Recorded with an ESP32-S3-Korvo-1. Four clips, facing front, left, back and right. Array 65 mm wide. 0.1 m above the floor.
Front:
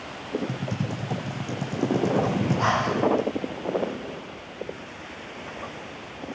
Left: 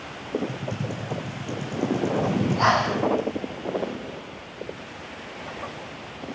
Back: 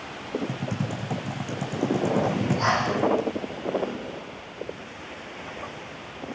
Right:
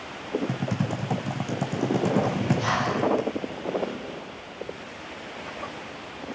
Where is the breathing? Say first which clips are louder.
Left 4 dB, even; 80° left, 4 m.